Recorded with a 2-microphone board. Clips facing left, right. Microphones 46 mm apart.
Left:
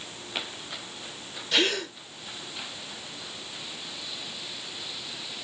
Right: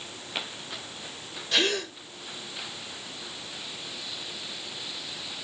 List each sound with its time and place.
1.5 s a gasp: 5° left (ahead or behind), 0.9 m